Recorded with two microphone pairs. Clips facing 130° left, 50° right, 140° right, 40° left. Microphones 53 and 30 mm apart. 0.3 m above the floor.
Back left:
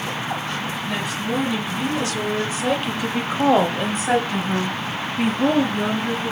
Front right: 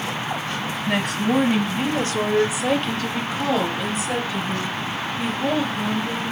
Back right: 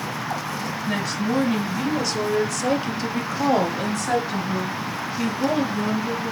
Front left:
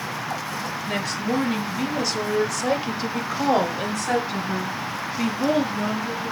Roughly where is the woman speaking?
Ahead right.